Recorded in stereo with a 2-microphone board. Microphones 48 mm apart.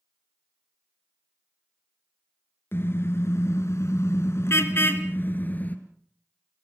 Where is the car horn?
55° left (ahead or behind), 2.5 m; by 5.8 s 35° left (ahead or behind), 3 m.